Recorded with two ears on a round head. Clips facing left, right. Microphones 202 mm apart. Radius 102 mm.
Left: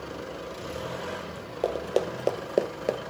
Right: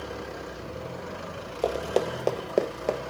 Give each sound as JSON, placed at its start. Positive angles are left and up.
{"t": 1.6, "sound": "running footsteps", "side_deg": 0, "distance_m": 1.2}